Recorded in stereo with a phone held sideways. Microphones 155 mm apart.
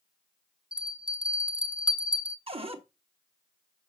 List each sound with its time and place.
0.7 s a bell: 30° right (ahead or behind), 0.9 m
2.5 s a cupboard door: 40° right (ahead or behind), 1.1 m